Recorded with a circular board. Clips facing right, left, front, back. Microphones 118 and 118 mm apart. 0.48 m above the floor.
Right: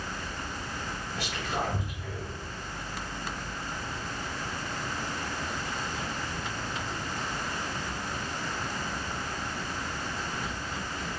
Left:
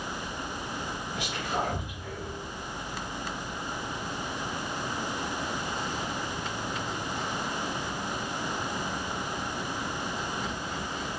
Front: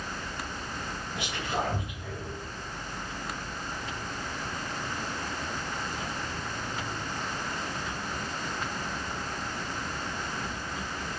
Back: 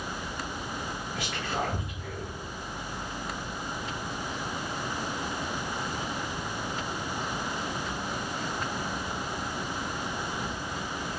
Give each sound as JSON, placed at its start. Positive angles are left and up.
{"t": 1.1, "sound": "whispering", "azimuth_deg": 35, "distance_m": 1.2}